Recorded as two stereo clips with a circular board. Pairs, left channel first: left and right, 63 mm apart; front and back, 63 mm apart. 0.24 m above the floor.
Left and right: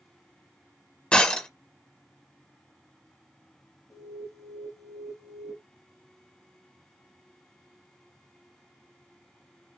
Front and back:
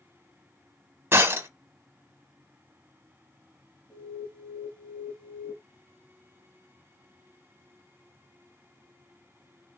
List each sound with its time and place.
1.1 s breaking glass: 155° left, 1.0 m
3.9 s an alarm: 70° left, 2.5 m